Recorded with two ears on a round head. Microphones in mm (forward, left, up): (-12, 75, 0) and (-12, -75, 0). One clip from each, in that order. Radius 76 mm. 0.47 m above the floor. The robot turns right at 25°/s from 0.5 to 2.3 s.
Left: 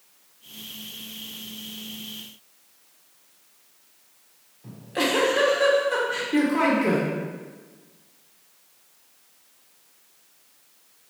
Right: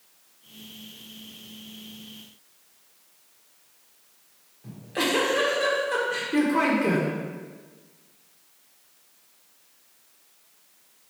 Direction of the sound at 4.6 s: Centre (ahead or behind).